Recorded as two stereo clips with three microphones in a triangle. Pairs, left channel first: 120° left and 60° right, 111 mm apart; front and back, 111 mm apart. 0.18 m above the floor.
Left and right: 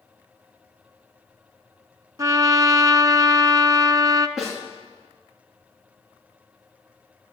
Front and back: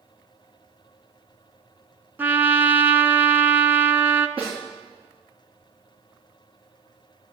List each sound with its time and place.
2.2 s a trumpet: 110° right, 0.7 m
4.4 s a snare drum: 145° right, 8.5 m